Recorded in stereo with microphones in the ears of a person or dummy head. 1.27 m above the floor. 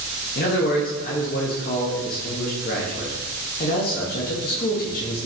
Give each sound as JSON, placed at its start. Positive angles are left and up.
{"t": 0.3, "sound": "a man speaking", "side_deg": 45, "distance_m": 0.6}